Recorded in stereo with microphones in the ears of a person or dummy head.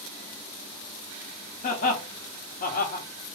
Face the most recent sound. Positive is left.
turn(degrees=30)  # may be behind; listen again after turning